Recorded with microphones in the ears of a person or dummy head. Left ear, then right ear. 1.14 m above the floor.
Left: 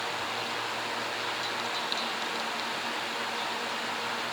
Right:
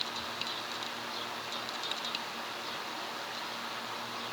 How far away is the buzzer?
I don't hear a buzzer.